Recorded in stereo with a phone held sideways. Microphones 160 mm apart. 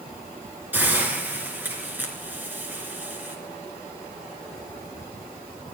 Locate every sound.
0.7 s a hiss: 10° right (ahead or behind), 3.5 m